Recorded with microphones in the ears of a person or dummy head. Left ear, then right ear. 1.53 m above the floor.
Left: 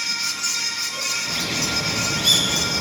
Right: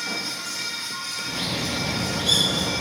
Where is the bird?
55° left (ahead or behind), 3.5 m.